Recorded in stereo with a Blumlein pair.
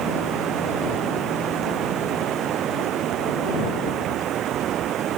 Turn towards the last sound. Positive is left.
turn(degrees=-30)